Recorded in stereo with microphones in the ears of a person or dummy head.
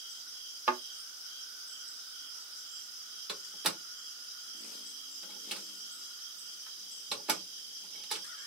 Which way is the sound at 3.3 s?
5° right (ahead or behind).